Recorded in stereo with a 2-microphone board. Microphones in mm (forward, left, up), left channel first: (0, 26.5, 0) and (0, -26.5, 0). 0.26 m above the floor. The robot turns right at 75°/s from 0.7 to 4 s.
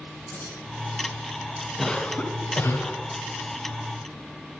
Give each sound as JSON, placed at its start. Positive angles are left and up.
{"t": 0.3, "sound": "keys jangling", "side_deg": 40, "distance_m": 4.5}
{"t": 1.8, "sound": "a cough", "azimuth_deg": 10, "distance_m": 2.0}